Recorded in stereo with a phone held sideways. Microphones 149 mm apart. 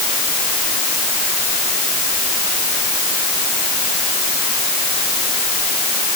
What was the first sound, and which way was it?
Only background noise.